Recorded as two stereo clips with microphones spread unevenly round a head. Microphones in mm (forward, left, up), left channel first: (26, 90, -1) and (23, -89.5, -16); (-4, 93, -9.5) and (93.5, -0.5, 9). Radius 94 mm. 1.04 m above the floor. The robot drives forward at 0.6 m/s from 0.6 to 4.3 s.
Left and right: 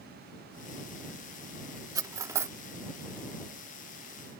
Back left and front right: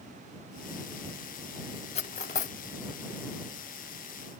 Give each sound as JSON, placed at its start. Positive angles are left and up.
{"t": 1.9, "sound": "cutlery clinking", "azimuth_deg": -165}